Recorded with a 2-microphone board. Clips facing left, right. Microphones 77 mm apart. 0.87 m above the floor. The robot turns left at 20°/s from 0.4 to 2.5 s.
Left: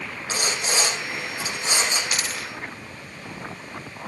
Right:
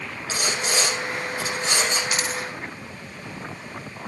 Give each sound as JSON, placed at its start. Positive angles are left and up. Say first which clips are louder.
{"t": 0.3, "sound": "sawing", "louder": "right 1 dB", "azimuth_deg": 35, "distance_m": 5.0}
{"t": 2.1, "sound": "a dropped coin", "louder": "right 3 dB", "side_deg": -25, "distance_m": 1.0}